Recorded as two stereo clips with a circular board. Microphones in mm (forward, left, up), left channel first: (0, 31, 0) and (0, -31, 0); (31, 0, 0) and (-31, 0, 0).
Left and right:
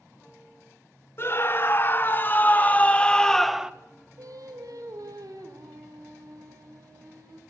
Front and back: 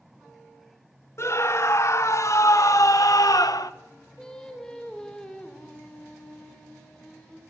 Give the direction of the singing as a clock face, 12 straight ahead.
3 o'clock.